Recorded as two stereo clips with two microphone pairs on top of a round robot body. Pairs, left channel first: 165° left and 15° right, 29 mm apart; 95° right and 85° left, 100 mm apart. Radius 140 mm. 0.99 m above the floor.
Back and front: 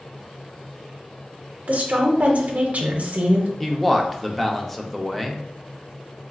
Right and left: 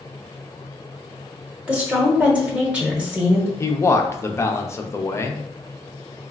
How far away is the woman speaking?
About 0.7 m.